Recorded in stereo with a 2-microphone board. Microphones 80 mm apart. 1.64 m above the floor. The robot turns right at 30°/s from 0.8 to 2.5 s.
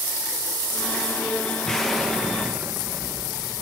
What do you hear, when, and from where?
1.6 s an explosion: 10° left (ahead or behind), 2 m; by 3.6 s 15° right (ahead or behind), 2 m